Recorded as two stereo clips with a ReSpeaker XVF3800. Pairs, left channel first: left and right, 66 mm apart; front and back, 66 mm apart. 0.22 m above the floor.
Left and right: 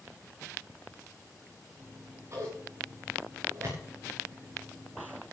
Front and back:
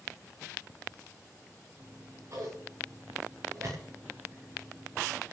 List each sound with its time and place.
1.8 s scissors: 135° right, 10 m